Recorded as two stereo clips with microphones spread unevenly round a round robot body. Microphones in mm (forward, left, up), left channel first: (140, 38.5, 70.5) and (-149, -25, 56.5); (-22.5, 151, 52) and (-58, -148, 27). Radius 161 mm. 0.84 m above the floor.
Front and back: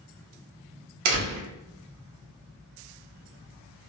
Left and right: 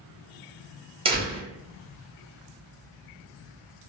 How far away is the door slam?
About 0.9 m.